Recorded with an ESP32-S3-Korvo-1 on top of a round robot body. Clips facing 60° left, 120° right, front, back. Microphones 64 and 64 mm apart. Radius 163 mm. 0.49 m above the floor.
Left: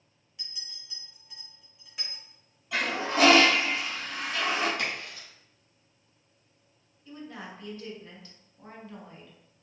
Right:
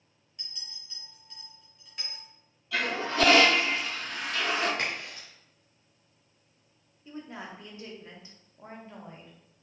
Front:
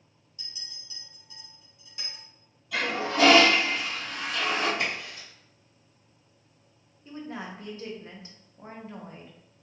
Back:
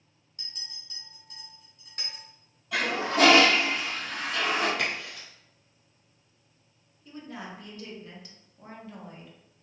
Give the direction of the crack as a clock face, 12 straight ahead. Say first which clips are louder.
Even, even; 6 o'clock.